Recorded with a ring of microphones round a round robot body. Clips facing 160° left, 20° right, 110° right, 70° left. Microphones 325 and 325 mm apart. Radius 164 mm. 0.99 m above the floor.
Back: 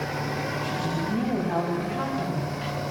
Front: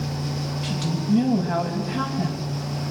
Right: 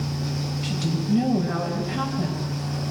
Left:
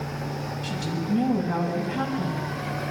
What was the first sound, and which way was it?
A woman speaking, 70° right.